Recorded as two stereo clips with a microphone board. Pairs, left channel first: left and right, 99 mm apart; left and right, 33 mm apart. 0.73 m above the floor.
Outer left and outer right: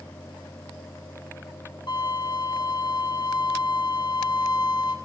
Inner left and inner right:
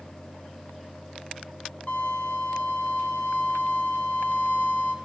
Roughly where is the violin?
Left.